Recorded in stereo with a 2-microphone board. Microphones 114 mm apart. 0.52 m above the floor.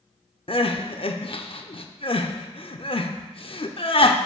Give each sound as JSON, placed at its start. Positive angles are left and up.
{"t": 0.5, "sound": "crying", "side_deg": 55, "distance_m": 0.5}